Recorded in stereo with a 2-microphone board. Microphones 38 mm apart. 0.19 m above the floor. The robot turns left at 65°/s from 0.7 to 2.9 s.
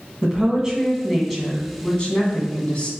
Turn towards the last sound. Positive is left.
turn(degrees=65)